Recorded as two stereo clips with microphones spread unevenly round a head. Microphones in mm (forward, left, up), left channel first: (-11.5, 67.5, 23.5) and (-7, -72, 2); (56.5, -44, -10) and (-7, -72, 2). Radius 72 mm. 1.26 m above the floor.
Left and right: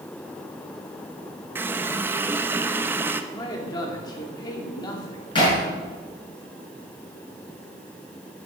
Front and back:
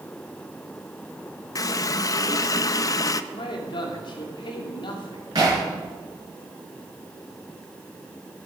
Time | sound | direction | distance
1.6 | a running tap | 5° right | 0.6 m
3.3 | a man speaking | 25° left | 2.5 m
5.3 | hammering | 150° left | 6.5 m